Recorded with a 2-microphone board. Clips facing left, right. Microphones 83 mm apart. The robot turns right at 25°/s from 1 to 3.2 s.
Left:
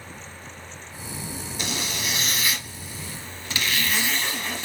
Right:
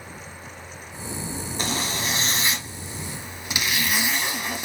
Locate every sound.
1.6 s a zipper: 65° right, 1.1 m; by 4.7 s 25° right, 1.1 m